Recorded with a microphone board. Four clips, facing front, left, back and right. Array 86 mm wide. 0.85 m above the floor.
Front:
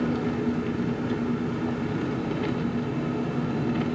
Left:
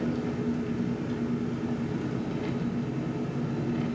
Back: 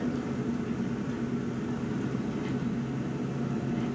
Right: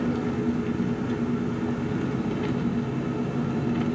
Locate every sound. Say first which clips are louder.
0.0 s an engine running: right 4 dB, front 5 dB; 35° right, 1.7 m